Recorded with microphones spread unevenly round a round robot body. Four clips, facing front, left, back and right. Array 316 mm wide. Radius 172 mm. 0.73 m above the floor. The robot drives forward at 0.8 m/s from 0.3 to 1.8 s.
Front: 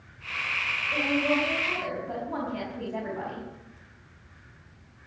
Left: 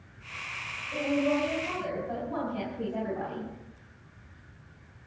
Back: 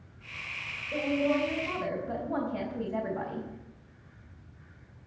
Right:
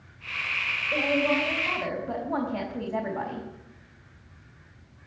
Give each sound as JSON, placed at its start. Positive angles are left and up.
{"t": 0.9, "sound": "a woman speaking", "azimuth_deg": -135, "distance_m": 4.0}